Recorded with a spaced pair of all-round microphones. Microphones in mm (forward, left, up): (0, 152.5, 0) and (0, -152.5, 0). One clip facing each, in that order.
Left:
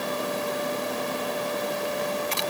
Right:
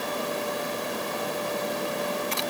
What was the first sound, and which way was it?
Only background noise.